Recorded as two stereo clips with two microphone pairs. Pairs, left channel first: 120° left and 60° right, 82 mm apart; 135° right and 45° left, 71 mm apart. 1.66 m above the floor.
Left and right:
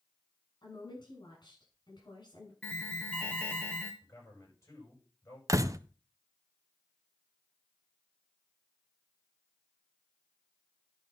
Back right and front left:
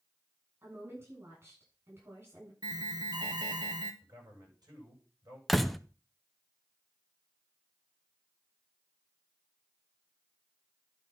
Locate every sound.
0.6 s a woman speaking: 95° left, 7.5 m
2.6 s an alarm: 45° left, 1.9 m
4.0 s a man speaking: 70° left, 9.5 m
5.5 s a door slam: 50° right, 0.6 m